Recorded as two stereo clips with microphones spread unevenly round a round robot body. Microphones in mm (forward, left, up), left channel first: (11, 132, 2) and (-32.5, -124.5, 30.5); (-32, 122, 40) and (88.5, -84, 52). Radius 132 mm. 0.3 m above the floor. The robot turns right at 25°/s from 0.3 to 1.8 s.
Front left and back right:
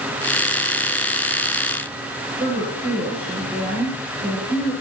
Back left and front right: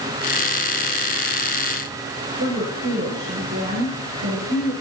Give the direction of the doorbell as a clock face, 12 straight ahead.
I don't hear a doorbell.